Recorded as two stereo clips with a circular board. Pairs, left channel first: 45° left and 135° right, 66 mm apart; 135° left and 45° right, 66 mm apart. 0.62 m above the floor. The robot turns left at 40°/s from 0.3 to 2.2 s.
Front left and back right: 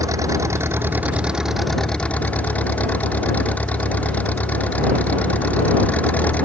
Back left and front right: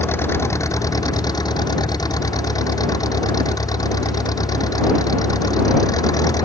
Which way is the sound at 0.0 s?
170° right.